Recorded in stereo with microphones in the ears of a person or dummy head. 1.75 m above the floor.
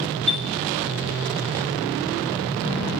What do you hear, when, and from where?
0.3 s a chime: 5° left (ahead or behind), 0.8 m